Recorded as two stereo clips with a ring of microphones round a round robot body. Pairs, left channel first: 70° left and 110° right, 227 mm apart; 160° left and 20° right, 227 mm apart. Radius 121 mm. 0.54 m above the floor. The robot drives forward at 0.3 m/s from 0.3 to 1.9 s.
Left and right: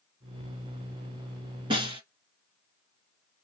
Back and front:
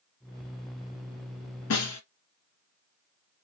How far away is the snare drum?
About 1.8 m.